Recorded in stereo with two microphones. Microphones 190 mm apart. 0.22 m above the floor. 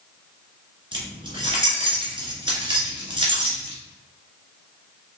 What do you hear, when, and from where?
0.9 s keys jangling: 25° right (ahead or behind), 1.9 m